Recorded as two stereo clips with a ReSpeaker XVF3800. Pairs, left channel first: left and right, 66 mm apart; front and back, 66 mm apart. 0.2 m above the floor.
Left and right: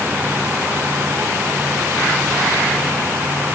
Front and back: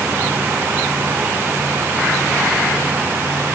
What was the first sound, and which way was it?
Only background noise.